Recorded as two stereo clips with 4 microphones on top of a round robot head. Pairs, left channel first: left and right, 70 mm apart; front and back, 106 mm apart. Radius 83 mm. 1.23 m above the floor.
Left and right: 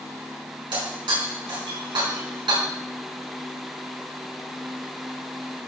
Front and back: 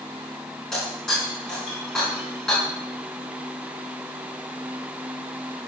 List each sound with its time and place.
0.7 s breaking glass: 90° right, 6 m